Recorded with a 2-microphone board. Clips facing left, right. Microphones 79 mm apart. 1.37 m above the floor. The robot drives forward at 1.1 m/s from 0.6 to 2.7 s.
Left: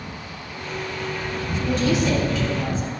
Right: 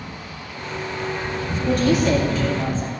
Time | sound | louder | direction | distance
1.7 | a woman speaking | right 3 dB | 55° right (ahead or behind) | 1.9 m